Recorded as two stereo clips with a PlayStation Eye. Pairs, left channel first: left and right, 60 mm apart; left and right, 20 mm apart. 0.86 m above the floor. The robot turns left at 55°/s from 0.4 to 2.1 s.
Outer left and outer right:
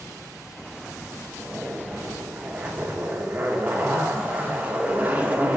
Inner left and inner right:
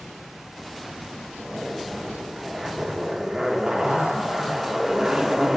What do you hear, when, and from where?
1.4 s a zipper: 15° right (ahead or behind), 0.8 m; by 5.6 s 25° right (ahead or behind), 0.8 m